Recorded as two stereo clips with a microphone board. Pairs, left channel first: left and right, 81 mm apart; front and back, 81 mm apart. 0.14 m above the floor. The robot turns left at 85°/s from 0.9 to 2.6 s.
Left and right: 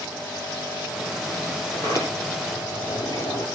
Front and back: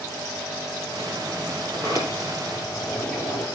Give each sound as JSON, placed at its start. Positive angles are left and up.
{"t": 1.7, "sound": "a sliding door", "azimuth_deg": 155, "distance_m": 3.5}